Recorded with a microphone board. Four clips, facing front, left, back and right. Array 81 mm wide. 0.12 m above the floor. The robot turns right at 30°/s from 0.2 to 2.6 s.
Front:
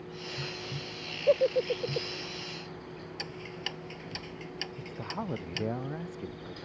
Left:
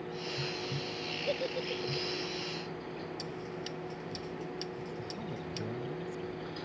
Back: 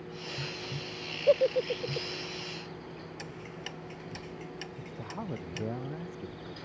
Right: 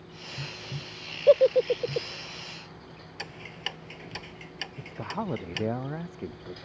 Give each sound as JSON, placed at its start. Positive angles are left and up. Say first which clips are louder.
{"t": 1.3, "sound": "a giggle", "louder": "right 17 dB, even", "azimuth_deg": -95}
{"t": 3.2, "sound": "ticking", "louder": "left 1 dB, front 2 dB", "azimuth_deg": -70}
{"t": 4.8, "sound": "a woman speaking", "louder": "right 5 dB, front 4 dB", "azimuth_deg": -75}